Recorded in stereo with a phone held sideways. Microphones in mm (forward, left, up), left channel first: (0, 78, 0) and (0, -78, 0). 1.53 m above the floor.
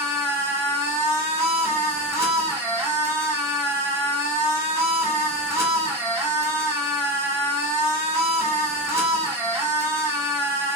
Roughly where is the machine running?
Right.